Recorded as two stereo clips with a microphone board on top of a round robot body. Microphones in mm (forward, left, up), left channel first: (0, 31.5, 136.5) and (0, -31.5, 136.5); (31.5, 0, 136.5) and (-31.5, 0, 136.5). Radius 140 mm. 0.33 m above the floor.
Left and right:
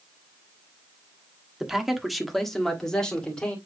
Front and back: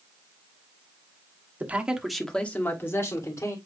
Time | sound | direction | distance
1.6 | a man speaking | 165° right | 1.6 m